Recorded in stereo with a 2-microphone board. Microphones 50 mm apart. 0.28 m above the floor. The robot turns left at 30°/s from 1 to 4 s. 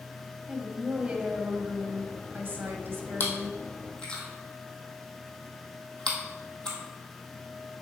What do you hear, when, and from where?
0.5 s a woman speaking: 30° right, 1.3 m; by 3.6 s 105° right, 1.3 m
3.2 s chewing: 40° left (ahead or behind), 1.7 m; by 6.8 s 20° left (ahead or behind), 1.7 m